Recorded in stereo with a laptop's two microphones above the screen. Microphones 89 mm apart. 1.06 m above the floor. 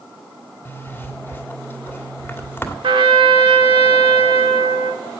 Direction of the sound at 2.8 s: 70° right (ahead or behind).